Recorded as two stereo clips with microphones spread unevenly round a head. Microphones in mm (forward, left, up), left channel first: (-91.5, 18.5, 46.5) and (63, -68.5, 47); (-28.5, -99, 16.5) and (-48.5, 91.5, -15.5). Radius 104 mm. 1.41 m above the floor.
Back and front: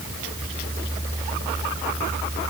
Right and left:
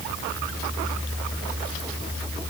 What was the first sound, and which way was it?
Only background noise.